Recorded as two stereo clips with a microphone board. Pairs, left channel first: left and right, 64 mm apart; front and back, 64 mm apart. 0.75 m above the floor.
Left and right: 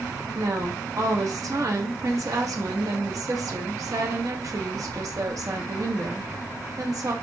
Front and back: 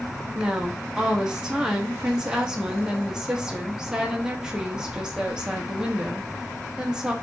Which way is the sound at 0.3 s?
105° right.